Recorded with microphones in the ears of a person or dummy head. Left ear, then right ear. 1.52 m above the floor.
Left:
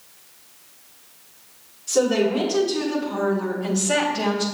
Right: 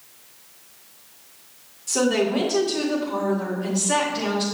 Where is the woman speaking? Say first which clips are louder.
Left 2 dB; 30° right (ahead or behind), 2 m; by 4.5 s 25° left (ahead or behind), 1.4 m.